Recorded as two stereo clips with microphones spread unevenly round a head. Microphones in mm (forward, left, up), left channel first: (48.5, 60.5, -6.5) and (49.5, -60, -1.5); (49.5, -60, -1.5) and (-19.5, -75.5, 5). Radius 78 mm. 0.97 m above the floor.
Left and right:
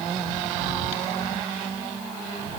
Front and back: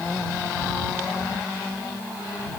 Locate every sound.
Only background noise.